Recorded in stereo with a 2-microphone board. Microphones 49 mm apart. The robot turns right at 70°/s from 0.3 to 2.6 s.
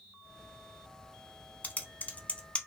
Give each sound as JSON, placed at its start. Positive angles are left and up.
{"t": 1.6, "sound": "typing on a keyboard", "side_deg": 30, "distance_m": 0.6}